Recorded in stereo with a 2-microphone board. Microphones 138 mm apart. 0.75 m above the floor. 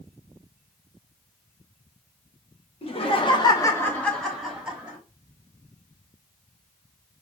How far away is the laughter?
About 1.3 m.